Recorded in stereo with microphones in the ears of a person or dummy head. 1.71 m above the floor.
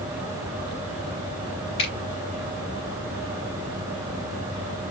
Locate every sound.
1.8 s a finger snap: 25° left (ahead or behind), 3 m